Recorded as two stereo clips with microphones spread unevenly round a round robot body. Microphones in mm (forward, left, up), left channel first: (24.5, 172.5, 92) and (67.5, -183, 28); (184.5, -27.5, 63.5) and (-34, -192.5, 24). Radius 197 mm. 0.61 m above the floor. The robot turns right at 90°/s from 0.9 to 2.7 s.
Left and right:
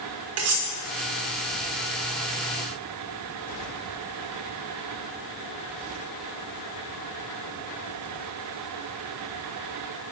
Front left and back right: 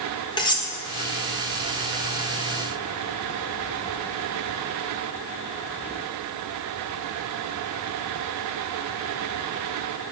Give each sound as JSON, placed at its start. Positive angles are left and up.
{"t": 0.4, "sound": "cutlery clinking", "azimuth_deg": -40, "distance_m": 1.3}